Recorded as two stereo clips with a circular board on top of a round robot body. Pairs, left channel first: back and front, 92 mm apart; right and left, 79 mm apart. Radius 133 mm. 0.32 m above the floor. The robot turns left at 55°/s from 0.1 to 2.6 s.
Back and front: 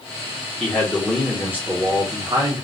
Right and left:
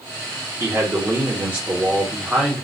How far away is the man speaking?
About 1.0 m.